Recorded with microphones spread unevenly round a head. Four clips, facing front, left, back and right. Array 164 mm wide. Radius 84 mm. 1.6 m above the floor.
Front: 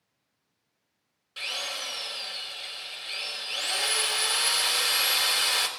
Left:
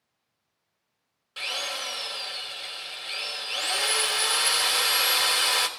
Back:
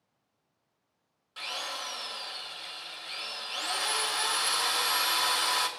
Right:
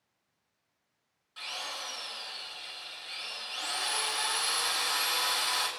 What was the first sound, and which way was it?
A drill, 75° left.